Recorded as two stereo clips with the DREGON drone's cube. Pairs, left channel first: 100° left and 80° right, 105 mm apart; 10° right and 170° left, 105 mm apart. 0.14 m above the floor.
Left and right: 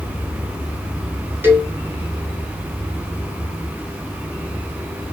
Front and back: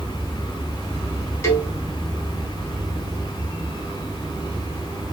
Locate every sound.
1.4 s a cowbell: 35° right, 1.6 m